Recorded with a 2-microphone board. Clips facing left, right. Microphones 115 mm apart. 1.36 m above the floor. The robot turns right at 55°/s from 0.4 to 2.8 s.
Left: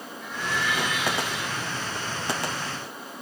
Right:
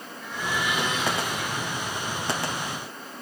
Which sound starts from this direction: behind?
A blender, at 0.2 s.